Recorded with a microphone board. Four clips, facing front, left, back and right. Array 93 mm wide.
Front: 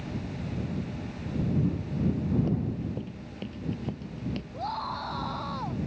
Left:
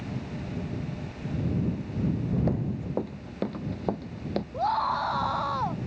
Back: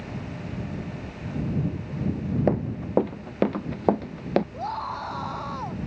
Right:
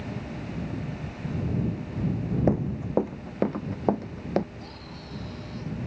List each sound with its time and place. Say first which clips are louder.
2.5 s running footsteps: right 4 dB, back 5 dB; 155° right; by 4.4 s 160° right
4.5 s a scream: left 17 dB, back 2 dB; 100° left